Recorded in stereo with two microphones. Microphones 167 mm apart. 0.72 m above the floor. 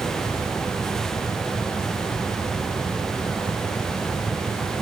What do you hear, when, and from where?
Only background noise.